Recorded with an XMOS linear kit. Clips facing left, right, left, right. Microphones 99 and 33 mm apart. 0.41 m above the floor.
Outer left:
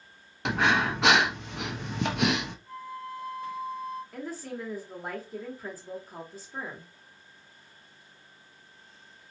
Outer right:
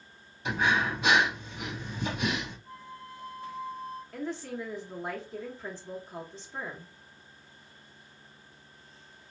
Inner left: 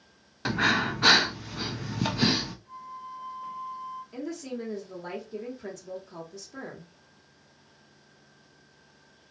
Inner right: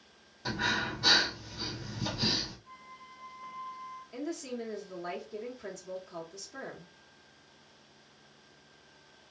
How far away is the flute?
About 0.9 m.